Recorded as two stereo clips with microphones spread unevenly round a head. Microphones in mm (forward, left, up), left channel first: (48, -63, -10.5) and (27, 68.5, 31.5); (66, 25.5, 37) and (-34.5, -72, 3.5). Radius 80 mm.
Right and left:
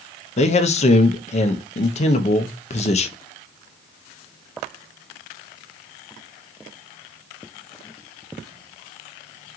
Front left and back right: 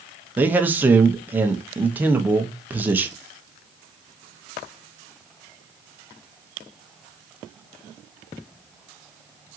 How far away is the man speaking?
About 0.6 m.